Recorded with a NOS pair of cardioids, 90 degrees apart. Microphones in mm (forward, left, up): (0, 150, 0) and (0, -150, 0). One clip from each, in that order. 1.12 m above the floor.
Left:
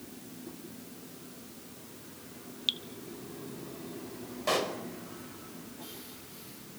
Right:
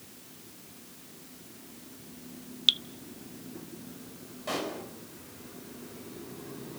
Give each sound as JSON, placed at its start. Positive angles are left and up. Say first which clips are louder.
{"t": 2.7, "sound": "dripping", "louder": "right 8 dB", "azimuth_deg": -30, "distance_m": 0.7}
{"t": 4.5, "sound": "a pop", "louder": "left 4 dB", "azimuth_deg": 45, "distance_m": 5.0}